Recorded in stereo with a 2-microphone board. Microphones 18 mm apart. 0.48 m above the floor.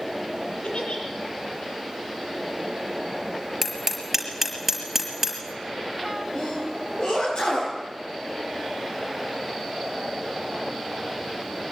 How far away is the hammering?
About 5 m.